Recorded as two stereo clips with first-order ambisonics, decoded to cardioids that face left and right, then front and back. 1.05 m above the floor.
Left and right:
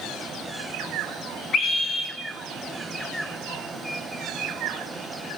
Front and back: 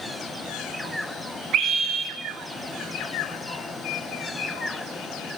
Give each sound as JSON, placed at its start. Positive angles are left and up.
{"t": 1.5, "sound": "a scream", "azimuth_deg": 145, "distance_m": 0.9}